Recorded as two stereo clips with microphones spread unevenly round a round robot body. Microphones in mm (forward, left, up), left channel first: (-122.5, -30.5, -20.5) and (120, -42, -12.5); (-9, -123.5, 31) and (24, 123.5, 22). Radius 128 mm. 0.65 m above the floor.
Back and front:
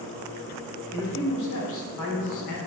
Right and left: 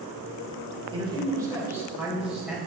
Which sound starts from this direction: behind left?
A man speaking, at 0.9 s.